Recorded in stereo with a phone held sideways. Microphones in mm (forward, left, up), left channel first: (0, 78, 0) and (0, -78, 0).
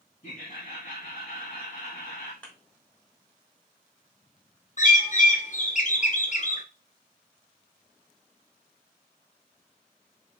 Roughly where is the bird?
Left.